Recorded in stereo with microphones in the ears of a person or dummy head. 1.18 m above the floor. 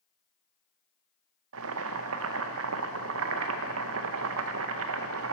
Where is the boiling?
80° right, 0.6 m.